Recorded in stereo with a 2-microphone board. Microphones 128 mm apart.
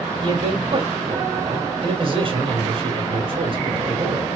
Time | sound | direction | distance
0.2 | a man speaking | 50° right (ahead or behind) | 2.5 m